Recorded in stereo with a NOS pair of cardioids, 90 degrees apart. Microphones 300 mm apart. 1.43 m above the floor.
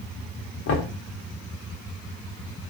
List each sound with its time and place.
0.7 s knocking: 50° left, 1.0 m